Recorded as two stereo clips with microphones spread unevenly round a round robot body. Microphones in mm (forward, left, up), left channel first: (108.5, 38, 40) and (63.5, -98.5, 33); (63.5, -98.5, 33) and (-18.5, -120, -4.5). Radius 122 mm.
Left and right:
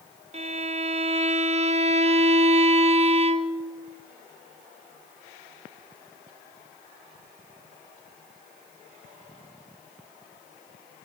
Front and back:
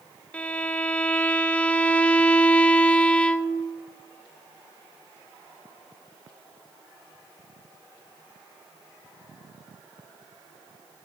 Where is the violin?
60° right, 0.6 m.